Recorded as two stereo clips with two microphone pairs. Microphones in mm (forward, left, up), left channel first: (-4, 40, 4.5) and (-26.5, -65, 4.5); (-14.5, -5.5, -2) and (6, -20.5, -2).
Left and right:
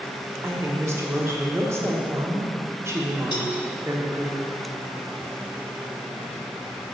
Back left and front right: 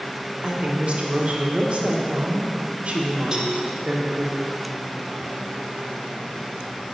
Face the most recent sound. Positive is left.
turn(degrees=30)